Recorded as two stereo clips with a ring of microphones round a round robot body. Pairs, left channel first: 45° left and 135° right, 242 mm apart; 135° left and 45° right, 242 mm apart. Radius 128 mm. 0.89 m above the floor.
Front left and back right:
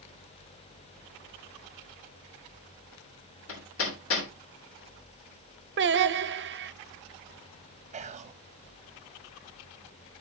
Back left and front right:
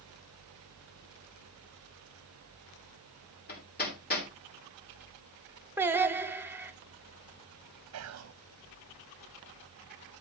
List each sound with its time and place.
3.5 s hammering: 80° left, 3 m
5.8 s singing: 125° right, 0.8 m
7.9 s whispering: 75° right, 0.6 m